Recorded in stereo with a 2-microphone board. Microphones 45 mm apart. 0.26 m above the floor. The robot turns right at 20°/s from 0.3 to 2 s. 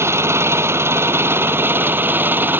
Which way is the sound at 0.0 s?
85° right.